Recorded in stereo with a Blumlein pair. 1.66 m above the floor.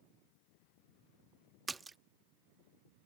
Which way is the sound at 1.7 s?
15° right.